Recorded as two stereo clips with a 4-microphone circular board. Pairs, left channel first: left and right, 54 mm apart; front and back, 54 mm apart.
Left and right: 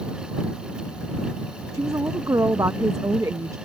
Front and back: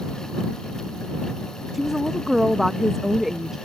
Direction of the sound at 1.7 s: 95° right.